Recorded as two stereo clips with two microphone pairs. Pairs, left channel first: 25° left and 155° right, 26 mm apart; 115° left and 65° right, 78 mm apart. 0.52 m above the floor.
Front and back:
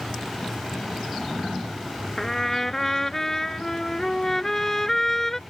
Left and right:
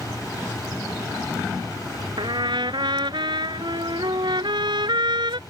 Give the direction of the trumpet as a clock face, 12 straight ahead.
2 o'clock.